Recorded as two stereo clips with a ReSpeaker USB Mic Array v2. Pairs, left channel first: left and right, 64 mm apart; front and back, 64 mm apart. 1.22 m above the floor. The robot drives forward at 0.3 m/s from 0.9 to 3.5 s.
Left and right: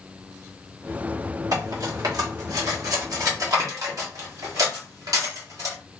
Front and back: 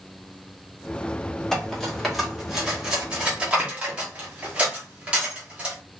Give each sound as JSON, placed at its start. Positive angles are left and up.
{"t": 1.5, "sound": "cutlery clinking", "azimuth_deg": -80, "distance_m": 1.3}